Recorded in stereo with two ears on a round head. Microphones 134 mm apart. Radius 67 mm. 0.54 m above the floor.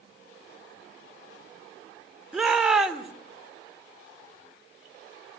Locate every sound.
2.3 s a shout: 5° right (ahead or behind), 1.8 m